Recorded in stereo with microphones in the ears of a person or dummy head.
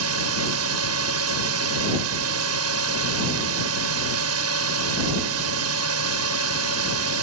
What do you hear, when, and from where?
0.0 s a drone: 80° right